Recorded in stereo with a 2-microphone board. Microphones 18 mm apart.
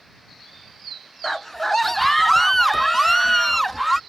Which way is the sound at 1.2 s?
20° left (ahead or behind).